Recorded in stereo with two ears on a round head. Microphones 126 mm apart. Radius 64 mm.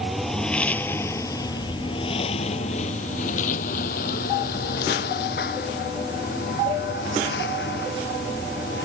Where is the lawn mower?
Centre (ahead or behind); by 8.8 s 85° left.